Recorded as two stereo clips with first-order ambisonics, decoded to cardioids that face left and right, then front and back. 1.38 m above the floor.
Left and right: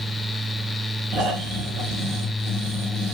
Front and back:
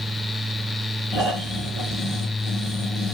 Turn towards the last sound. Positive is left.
turn(degrees=-90)